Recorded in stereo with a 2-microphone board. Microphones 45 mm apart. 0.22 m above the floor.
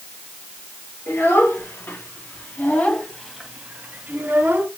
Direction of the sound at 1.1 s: 70° left (ahead or behind).